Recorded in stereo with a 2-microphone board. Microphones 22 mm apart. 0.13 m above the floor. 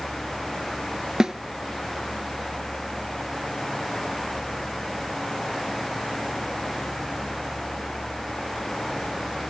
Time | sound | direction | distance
1.2 | a snare drum | 35° right (ahead or behind) | 0.7 m